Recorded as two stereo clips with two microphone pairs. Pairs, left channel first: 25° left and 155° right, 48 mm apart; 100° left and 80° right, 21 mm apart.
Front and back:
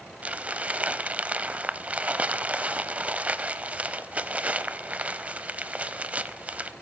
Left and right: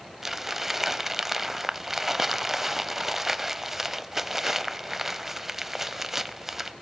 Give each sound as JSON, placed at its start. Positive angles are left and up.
{"t": 0.2, "sound": "crumpling", "azimuth_deg": -145, "distance_m": 0.6}